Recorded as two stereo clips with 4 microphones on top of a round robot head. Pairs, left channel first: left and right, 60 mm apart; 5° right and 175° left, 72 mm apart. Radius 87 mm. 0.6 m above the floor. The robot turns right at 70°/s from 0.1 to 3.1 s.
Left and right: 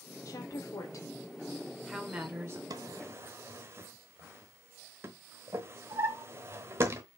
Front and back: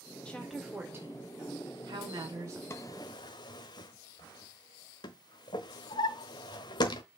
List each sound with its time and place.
0.2 s a woman speaking: 70° left, 2 m; by 2.6 s 125° right, 2 m
2.7 s a drawer: 65° right, 1.1 m; by 7.0 s 35° right, 1.1 m